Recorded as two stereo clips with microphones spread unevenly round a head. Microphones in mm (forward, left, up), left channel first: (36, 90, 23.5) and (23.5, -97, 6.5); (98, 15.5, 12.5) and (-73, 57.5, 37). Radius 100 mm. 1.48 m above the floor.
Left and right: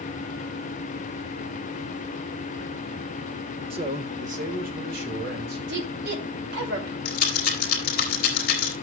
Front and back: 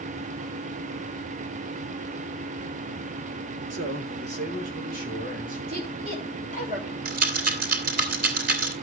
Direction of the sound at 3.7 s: 160° right.